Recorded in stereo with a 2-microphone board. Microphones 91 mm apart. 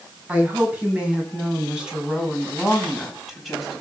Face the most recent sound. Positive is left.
turn(degrees=0)  # may be behind; listen again after turning